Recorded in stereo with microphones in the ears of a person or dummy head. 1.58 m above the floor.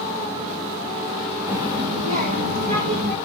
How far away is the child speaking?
About 1.3 m.